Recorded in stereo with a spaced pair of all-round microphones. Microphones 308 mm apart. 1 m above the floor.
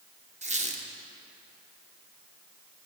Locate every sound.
0.4 s a squeak: 25° right (ahead or behind), 0.6 m